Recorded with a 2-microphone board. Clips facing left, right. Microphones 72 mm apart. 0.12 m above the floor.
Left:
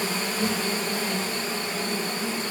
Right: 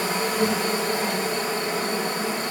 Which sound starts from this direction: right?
An insect, at 0.0 s.